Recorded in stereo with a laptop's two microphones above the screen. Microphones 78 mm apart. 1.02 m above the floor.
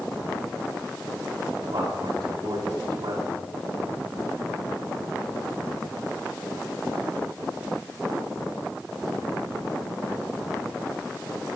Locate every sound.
1.6 s a man speaking: 75° right (ahead or behind), 6 m